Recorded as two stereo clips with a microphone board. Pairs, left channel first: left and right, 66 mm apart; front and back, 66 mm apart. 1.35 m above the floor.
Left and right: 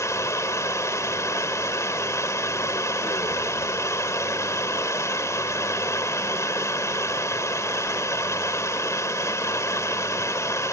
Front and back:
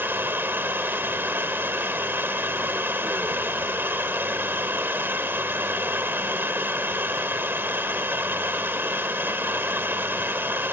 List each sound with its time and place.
0.0 s running water: 125° left